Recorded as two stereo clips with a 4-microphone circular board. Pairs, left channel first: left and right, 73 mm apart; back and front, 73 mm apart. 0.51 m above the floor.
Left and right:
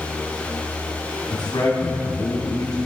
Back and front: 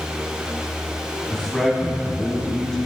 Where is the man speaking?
95° left, 3 m.